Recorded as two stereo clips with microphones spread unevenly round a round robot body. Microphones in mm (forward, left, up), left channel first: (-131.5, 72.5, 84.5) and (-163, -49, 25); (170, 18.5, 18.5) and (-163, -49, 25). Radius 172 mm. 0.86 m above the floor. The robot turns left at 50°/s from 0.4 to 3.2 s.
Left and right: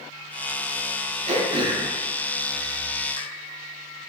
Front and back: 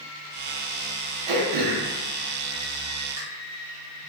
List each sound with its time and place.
1.3 s throat clearing: 155° right, 0.6 m; by 3.2 s 110° left, 0.6 m